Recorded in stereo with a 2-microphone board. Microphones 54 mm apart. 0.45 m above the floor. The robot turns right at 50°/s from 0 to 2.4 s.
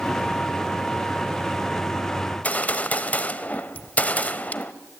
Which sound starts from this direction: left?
A gunshot, at 2.3 s.